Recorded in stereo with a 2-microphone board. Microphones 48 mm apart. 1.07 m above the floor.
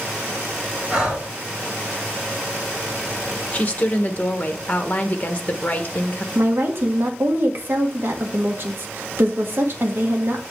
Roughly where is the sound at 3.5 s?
Left.